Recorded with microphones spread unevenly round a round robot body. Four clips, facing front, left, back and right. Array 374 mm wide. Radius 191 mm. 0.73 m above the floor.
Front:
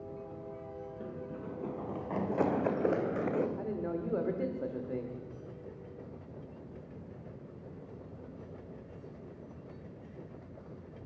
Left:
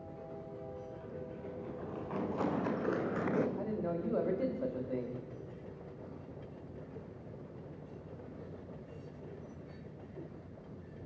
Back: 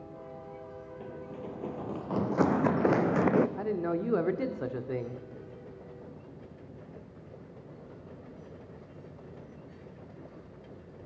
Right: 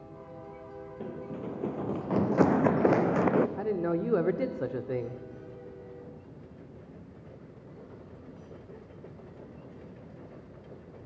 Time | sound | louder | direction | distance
1.0 | running footsteps | right 6 dB, back 2 dB | 80° right | 2.5 m
3.6 | a man speaking | right 7 dB, back 5 dB | 130° right | 2 m